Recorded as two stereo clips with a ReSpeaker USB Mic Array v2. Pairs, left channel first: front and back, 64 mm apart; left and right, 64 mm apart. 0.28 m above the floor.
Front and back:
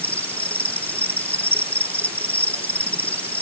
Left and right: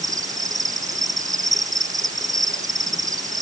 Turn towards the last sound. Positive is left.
turn(degrees=-70)